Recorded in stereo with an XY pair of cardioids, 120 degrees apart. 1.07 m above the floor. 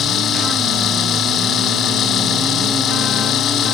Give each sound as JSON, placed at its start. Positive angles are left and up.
{"t": 0.0, "sound": "a machine running", "azimuth_deg": 55}